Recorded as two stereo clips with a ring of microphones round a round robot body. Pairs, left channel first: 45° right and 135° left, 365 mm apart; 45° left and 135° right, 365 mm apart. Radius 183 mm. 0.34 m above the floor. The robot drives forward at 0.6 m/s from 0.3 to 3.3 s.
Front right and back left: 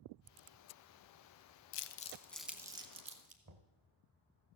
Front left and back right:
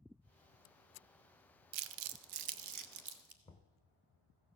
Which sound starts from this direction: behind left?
Knocking, at 3.5 s.